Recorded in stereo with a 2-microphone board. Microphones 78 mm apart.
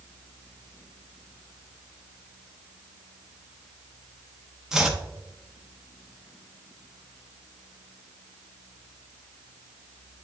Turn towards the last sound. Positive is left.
turn(degrees=-5)  # may be behind; listen again after turning